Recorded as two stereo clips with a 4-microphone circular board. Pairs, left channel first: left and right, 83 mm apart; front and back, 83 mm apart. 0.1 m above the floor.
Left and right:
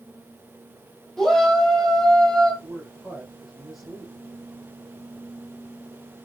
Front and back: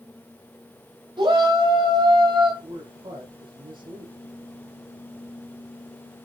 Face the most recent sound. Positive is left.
turn(degrees=-175)